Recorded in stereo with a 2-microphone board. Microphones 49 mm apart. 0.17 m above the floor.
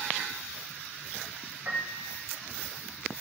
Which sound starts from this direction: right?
A piano, at 1.6 s.